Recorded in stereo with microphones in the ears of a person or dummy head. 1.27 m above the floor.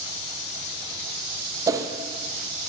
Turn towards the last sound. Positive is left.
turn(degrees=-20)  # may be behind; listen again after turning